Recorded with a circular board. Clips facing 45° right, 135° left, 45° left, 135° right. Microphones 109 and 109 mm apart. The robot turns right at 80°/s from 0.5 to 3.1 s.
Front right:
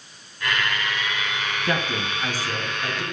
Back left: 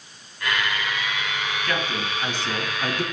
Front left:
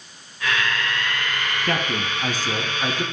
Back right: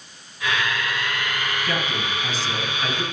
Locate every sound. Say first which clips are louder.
1.6 s a man speaking: front right 3 dB, front left 2 dB; 10° left, 1.9 m; by 3.0 s 125° left, 1.9 m